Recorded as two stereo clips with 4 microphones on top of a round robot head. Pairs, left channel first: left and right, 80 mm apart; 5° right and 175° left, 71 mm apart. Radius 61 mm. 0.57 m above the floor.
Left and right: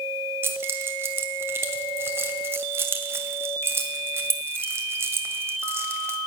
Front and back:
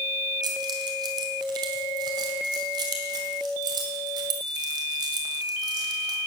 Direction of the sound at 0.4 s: 150° right.